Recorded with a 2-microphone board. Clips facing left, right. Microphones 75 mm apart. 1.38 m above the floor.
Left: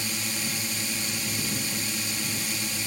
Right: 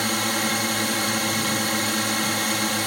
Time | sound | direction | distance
0.0 | a drone | 70° right (ahead or behind) | ?